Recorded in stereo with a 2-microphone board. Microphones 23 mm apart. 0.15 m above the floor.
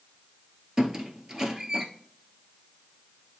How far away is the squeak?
About 1.0 m.